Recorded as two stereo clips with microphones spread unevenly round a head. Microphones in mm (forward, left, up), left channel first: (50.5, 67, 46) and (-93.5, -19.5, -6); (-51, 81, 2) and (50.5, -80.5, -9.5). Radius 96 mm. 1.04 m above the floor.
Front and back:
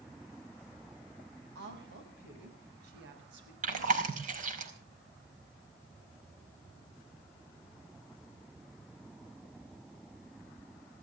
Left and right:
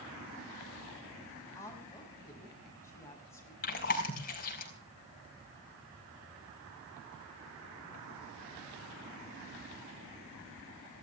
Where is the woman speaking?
160° right, 6 m.